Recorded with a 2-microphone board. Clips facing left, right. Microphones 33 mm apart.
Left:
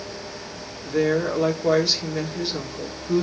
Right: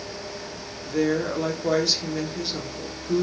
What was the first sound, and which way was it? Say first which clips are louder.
A woman speaking: left 2 dB; 10° left (ahead or behind).